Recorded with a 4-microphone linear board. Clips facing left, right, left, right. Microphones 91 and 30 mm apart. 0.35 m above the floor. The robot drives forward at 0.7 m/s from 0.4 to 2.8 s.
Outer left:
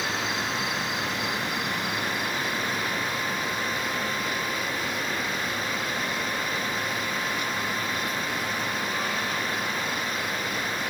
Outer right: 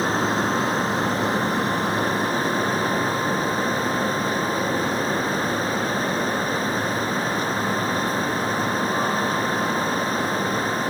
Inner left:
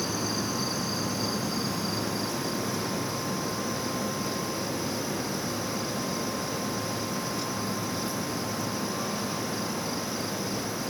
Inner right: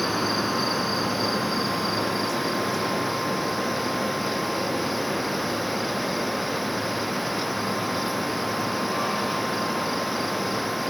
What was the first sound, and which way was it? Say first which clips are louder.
An insect: outer right 8 dB, inner right 6 dB; 40° right (ahead or behind).